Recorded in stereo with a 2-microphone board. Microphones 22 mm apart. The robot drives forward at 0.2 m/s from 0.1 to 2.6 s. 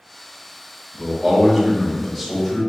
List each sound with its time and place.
0.9 s a man speaking: 5° left (ahead or behind), 1.4 m